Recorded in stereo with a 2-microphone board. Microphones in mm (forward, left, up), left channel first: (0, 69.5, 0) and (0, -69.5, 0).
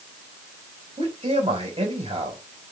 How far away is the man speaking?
About 4 m.